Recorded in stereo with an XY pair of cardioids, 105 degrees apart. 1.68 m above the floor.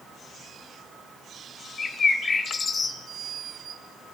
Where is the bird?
40° left, 3 m.